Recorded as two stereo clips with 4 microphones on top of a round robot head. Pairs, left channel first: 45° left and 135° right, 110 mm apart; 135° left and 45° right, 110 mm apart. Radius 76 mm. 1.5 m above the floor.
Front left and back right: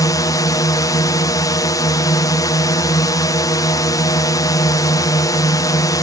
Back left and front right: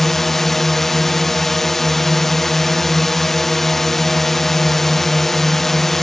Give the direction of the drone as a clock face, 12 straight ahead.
10 o'clock.